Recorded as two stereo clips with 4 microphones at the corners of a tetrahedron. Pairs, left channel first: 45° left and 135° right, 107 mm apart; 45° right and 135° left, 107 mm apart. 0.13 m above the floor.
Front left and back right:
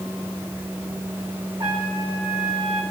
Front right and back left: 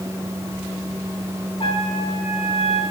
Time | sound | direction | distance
1.6 | a trumpet | 85° right | 6 m